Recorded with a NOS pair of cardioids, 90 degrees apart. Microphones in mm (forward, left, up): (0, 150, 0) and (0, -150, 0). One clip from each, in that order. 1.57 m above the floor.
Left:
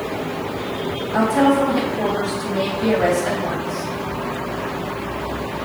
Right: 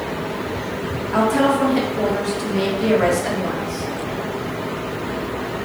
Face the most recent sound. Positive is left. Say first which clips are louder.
# left 1 dB
turn(degrees=-40)